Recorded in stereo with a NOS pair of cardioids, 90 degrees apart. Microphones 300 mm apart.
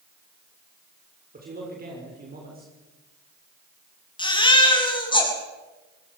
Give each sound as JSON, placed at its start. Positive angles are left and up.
{"t": 1.3, "sound": "a man speaking", "azimuth_deg": -30, "distance_m": 6.5}
{"t": 4.2, "sound": "a baby crying", "azimuth_deg": 15, "distance_m": 7.5}